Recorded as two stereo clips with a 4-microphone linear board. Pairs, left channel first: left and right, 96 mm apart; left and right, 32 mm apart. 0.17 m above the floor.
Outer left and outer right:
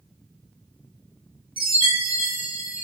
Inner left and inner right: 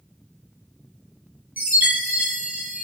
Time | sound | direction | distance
1.6 | a chime | 60° right (ahead or behind) | 3 m